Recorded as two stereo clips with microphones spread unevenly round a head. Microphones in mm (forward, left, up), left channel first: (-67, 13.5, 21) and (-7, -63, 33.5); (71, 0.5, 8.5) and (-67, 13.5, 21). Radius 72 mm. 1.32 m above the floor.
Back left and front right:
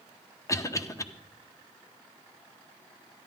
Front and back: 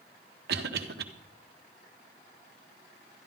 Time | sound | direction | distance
0.5 | a cough | 175° right | 1.3 m